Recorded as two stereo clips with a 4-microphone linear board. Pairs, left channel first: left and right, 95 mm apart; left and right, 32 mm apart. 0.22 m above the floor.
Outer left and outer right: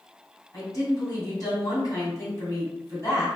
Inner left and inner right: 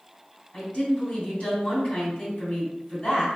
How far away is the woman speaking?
About 1.9 m.